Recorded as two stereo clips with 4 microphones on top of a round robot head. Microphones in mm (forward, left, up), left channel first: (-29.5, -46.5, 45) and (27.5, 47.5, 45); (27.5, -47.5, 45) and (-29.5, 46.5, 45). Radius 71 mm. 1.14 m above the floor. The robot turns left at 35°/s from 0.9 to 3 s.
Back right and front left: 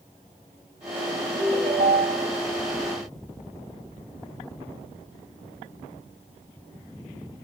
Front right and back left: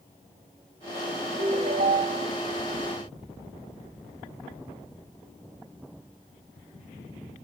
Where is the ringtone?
110° left, 2.5 m; by 2.3 s 75° left, 2.5 m.